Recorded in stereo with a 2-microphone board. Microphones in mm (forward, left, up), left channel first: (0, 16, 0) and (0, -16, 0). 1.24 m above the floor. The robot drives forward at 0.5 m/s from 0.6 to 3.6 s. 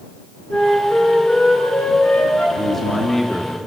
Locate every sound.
0.5 s a flute: 45° left (ahead or behind), 7 m; by 2.5 s 40° left (ahead or behind), 8 m
2.6 s a man speaking: 10° left (ahead or behind), 2 m; by 3.5 s 5° left (ahead or behind), 2.5 m